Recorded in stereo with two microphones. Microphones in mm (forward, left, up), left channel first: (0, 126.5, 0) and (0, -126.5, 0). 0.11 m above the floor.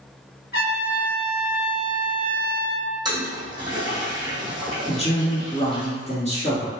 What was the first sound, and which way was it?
A trumpet, 40° left (ahead or behind).